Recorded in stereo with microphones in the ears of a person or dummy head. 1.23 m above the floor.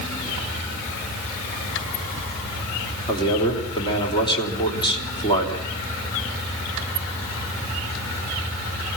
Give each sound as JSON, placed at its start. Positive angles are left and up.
{"t": 3.1, "sound": "a man speaking", "side_deg": 25, "distance_m": 3.5}